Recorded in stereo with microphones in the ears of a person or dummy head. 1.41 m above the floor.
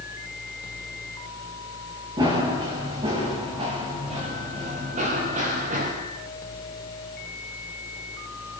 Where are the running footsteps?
25° right (ahead or behind), 7 m; by 5.9 s 45° right (ahead or behind), 6.5 m.